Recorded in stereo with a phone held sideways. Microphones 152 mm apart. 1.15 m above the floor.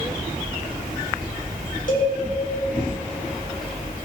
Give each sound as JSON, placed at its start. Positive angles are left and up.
{"t": 1.9, "sound": "a cowbell", "side_deg": 60, "distance_m": 3.5}